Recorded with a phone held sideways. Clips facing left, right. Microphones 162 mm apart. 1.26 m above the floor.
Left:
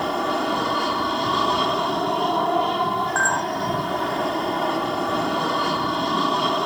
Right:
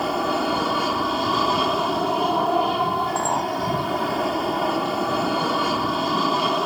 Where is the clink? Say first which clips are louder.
Right 1 dB; 20° right (ahead or behind).